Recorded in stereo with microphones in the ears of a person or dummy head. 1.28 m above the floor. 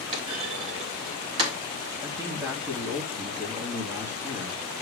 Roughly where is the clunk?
Right.